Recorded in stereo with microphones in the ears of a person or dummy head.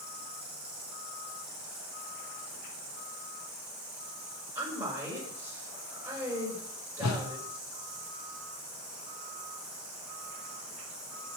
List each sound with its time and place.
0.0 s an insect: centre (ahead or behind), 6.5 m
4.5 s a woman speaking: 5° right (ahead or behind), 7.5 m
7.0 s a whoosh: 85° left, 1.8 m